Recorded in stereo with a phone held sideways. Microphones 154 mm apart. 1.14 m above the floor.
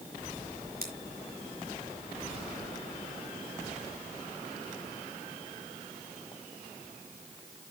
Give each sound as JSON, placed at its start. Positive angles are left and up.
{"t": 0.8, "sound": "scissors", "side_deg": -75, "distance_m": 3.5}